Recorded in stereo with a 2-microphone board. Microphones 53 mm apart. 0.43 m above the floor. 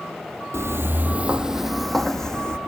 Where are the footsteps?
55° right (ahead or behind), 0.7 m; by 2.6 s 15° left (ahead or behind), 1.3 m.